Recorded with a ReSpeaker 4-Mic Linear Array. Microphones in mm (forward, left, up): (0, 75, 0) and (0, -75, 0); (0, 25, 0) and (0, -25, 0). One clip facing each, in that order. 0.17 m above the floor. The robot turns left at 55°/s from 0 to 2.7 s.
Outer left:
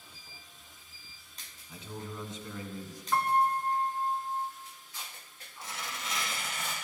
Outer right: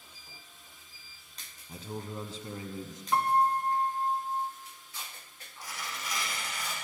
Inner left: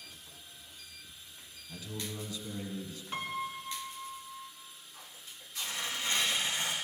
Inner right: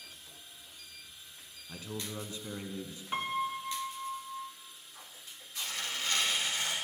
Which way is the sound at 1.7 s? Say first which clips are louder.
Outer right 3 dB, inner right 1 dB; 85° right.